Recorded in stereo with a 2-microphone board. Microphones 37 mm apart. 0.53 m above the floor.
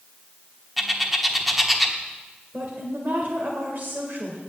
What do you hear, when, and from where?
0.8 s a bird: centre (ahead or behind), 1.1 m
2.5 s a woman speaking: 55° right (ahead or behind), 2.0 m